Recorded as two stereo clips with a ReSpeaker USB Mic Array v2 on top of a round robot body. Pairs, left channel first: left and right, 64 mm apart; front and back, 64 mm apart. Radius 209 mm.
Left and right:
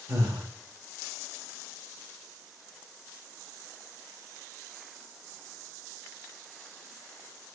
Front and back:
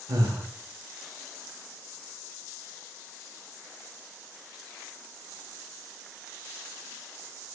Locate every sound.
0.1 s breathing: 135° right, 0.6 m